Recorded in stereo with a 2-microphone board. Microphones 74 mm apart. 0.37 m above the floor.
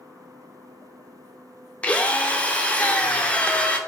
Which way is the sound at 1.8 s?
15° left (ahead or behind).